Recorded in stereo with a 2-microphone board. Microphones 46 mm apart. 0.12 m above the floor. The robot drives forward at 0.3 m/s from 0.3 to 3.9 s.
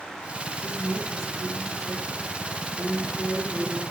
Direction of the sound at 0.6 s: 60° right (ahead or behind).